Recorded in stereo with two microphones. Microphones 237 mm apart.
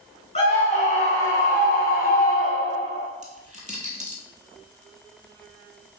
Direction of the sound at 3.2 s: 30° right (ahead or behind).